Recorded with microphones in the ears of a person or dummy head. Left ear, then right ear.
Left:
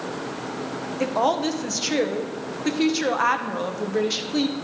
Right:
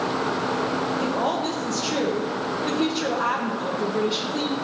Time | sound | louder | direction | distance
1.0 | a woman speaking | left 2 dB | 75° left (ahead or behind) | 0.9 m